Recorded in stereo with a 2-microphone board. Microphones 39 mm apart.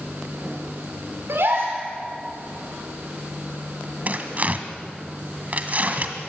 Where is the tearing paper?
40° right (ahead or behind), 1.7 m.